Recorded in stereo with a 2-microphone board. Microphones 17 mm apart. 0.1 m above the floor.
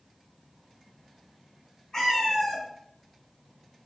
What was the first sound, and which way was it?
A cat meowing, 35° left (ahead or behind).